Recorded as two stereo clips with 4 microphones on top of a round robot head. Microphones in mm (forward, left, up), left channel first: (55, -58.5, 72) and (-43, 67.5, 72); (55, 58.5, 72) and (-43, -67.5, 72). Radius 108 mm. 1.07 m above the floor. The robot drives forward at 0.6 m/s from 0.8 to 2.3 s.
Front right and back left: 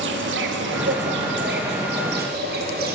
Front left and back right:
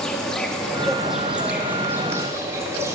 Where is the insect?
140° left, 1.1 m; by 3.0 s 155° left, 1.9 m.